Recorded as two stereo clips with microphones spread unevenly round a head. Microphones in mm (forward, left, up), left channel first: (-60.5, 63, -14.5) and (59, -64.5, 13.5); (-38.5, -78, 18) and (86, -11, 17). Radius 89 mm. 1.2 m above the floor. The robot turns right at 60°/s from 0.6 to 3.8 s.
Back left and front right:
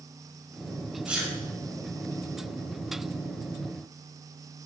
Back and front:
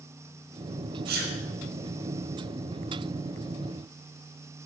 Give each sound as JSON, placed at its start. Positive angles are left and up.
{"t": 1.1, "sound": "a sneeze", "azimuth_deg": 35, "distance_m": 5.5}